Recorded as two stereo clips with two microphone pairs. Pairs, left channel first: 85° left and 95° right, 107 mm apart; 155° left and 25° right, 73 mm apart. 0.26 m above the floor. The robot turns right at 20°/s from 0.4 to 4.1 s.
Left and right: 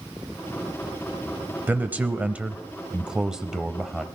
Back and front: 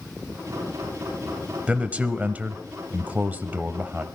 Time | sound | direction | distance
1.7 | a man speaking | 60° right | 0.9 m